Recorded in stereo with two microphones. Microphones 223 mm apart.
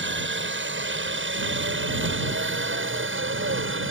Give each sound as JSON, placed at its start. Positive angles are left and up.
{"t": 0.0, "sound": "a helicopter", "side_deg": -55}